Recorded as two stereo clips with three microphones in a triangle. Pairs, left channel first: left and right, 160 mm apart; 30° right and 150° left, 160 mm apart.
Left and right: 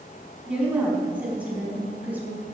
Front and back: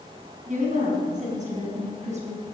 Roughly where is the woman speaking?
Behind.